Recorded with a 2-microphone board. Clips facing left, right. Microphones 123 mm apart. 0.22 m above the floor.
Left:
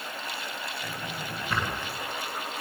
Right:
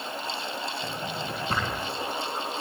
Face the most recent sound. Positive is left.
turn(degrees=-35)  # may be behind; listen again after turning